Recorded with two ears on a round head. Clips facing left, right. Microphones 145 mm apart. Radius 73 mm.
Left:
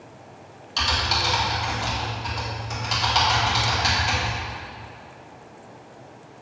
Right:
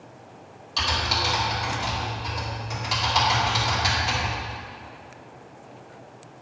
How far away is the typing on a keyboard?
About 2.5 m.